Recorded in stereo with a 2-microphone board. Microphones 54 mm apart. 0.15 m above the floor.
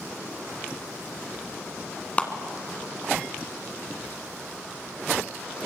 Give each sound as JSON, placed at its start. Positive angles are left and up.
{"t": 2.2, "sound": "a clap", "side_deg": 25, "distance_m": 1.5}